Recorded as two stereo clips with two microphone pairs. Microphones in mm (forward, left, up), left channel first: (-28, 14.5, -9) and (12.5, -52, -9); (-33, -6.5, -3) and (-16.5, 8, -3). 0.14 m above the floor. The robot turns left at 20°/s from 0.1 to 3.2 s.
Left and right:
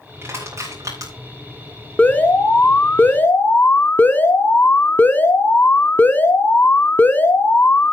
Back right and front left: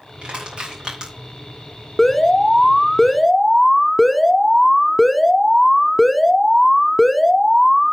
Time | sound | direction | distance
0.2 | crushing | straight ahead | 6.5 m
2.0 | an alarm | 160° left | 0.7 m